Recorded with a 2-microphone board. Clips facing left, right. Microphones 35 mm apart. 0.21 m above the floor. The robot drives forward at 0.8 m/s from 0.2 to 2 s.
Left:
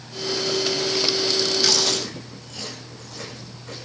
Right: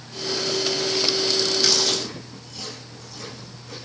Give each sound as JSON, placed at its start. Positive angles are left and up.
{"t": 1.6, "sound": "chewing", "side_deg": 55, "distance_m": 9.0}